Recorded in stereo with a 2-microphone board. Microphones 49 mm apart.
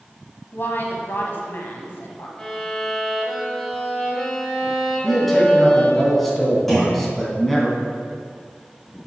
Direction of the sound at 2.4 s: 10° left (ahead or behind).